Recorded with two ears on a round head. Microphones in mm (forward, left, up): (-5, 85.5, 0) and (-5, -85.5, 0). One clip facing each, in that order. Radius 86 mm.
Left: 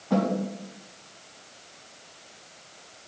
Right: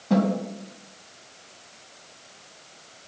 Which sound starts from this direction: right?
A snare drum, at 0.1 s.